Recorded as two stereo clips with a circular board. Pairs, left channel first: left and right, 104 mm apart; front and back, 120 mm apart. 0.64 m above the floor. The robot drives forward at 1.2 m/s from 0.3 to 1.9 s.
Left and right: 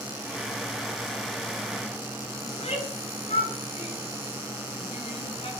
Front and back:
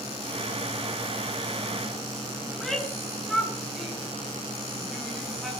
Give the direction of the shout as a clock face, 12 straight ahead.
9 o'clock.